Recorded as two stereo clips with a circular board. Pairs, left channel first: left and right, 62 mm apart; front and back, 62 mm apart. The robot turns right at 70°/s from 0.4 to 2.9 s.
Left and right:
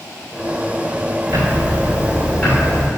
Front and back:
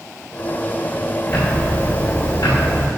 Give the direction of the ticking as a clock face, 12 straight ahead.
2 o'clock.